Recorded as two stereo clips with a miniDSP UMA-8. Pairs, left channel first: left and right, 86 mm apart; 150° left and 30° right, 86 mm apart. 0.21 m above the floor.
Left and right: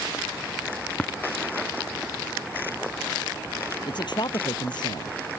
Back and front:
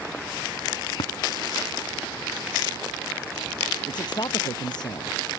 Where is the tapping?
170° left.